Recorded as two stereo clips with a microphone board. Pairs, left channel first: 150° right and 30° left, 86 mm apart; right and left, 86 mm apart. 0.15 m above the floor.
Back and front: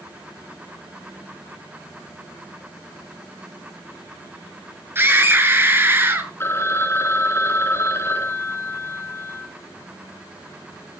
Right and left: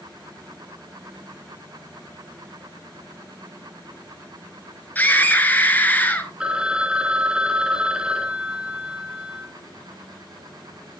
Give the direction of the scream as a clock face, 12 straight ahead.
1 o'clock.